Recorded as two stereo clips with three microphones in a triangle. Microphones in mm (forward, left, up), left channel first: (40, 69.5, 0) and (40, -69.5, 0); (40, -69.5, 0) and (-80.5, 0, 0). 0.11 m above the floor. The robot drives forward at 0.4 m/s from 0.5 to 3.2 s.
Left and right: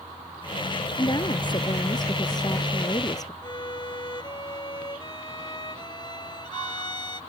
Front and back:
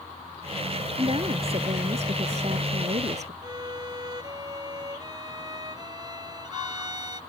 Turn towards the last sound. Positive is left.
turn(degrees=115)